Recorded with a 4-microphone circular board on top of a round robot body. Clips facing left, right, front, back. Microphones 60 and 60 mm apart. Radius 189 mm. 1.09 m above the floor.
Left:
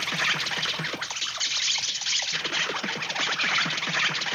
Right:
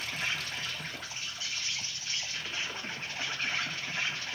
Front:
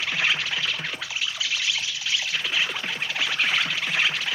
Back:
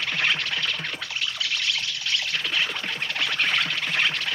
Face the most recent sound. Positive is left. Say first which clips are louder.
# left 8 dB, even
turn(degrees=85)